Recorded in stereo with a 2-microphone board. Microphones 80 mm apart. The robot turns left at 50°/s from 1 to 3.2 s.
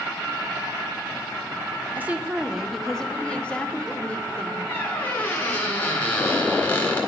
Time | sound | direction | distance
1.9 | a woman speaking | 145° right | 0.9 m
4.7 | a squeak | 20° left (ahead or behind) | 2.5 m